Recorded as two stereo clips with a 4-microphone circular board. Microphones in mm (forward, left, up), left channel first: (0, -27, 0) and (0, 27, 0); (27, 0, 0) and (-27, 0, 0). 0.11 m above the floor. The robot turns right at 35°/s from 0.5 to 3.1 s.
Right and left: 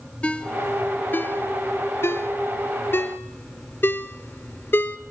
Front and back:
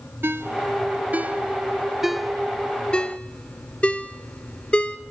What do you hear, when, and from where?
0.2 s a ringtone: 150° right, 0.9 m; by 5.0 s 60° right, 0.9 m